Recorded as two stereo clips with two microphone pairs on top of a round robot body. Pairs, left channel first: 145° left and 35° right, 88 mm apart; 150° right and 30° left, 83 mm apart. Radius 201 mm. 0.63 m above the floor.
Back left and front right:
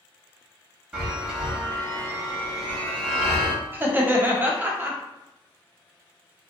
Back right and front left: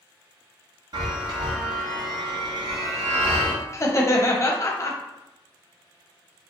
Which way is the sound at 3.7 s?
95° right.